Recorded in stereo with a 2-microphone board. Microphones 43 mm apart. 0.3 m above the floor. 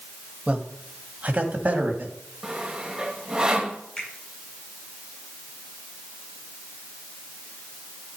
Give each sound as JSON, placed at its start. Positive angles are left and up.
{"t": 0.5, "sound": "a man speaking", "side_deg": -30, "distance_m": 1.5}
{"t": 2.4, "sound": "sawing", "side_deg": -20, "distance_m": 1.5}
{"t": 4.0, "sound": "a finger snap", "side_deg": 20, "distance_m": 6.5}